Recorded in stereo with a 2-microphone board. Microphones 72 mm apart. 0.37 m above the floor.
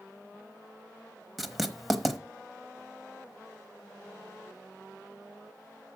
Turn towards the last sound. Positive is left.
turn(degrees=0)  # may be behind; listen again after turning